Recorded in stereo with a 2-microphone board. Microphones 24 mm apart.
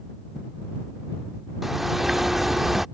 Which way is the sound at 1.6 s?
15° right (ahead or behind).